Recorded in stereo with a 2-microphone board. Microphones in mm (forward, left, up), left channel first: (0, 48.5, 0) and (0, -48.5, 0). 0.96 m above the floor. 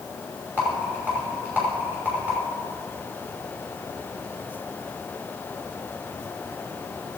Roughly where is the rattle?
Centre.